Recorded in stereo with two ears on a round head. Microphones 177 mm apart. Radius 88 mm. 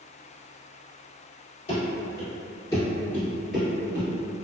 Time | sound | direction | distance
1.7 | running footsteps | 35° left (ahead or behind) | 1.9 m